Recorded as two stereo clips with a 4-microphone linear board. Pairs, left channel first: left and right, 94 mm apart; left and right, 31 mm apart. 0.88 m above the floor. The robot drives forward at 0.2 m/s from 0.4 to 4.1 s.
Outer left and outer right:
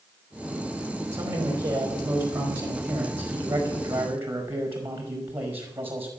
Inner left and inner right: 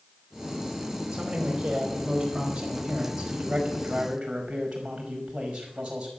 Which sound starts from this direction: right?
A man speaking, at 1.1 s.